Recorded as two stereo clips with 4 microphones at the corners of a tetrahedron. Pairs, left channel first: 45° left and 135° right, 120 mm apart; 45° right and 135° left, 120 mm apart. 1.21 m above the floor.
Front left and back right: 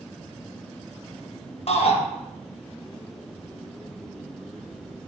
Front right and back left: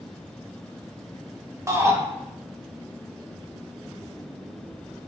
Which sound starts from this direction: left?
A shout, at 1.7 s.